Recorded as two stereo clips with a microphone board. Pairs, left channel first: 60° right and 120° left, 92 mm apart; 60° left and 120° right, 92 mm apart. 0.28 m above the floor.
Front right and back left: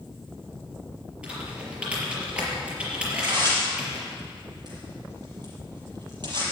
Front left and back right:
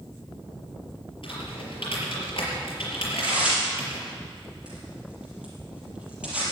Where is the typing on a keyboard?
40° left, 5 m.